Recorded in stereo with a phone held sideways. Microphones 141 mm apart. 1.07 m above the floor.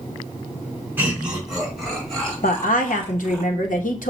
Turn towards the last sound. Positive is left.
turn(degrees=70)  # may be behind; listen again after turning